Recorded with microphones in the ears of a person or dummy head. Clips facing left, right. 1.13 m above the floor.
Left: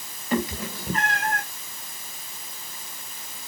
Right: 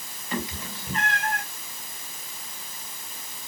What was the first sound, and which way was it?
A cat meowing, 40° left (ahead or behind).